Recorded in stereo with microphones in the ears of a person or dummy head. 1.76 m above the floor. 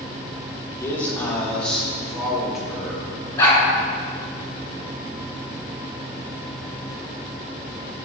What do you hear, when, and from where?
0.8 s a man speaking: 15° left (ahead or behind), 3.5 m; by 3.1 s 5° right (ahead or behind), 6 m
3.4 s a dog barking: 15° left (ahead or behind), 5.5 m